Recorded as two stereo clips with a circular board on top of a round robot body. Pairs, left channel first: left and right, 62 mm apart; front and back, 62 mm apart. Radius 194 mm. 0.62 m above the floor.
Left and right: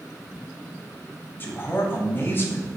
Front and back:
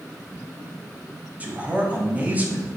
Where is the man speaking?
125° left, 1.2 m.